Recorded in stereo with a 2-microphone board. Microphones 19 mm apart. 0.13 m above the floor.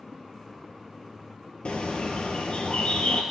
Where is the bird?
65° left (ahead or behind), 1.3 m.